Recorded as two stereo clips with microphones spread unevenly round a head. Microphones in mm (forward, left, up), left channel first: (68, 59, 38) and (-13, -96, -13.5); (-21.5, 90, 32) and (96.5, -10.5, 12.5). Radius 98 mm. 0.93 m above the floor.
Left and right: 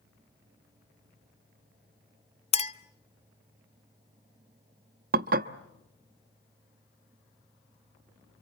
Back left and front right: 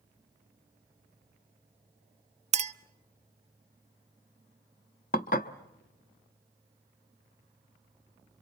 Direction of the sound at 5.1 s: 170° right.